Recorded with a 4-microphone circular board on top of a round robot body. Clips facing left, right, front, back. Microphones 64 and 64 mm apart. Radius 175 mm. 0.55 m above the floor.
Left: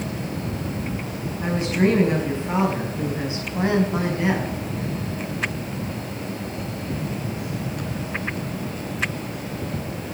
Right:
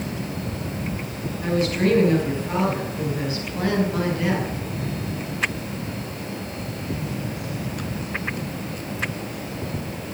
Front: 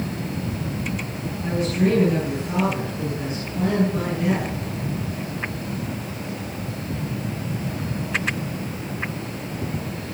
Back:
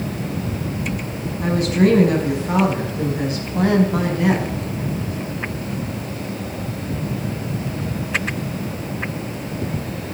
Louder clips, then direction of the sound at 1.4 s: Even, back 5 dB; 160° left.